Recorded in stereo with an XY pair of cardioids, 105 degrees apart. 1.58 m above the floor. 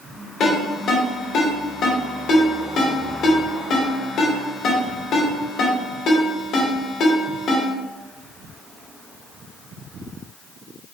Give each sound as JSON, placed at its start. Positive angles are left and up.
{"t": 0.4, "sound": "a ringtone", "azimuth_deg": 70, "distance_m": 1.8}